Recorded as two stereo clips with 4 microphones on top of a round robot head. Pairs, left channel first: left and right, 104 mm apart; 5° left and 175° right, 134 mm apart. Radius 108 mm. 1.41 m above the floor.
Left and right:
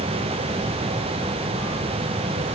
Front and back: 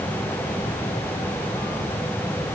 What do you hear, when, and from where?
Only background noise.